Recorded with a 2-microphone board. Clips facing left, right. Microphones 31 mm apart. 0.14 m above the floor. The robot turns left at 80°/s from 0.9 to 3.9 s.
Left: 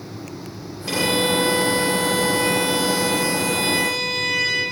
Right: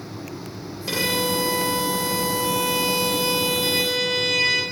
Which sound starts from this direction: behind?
A violin, at 0.9 s.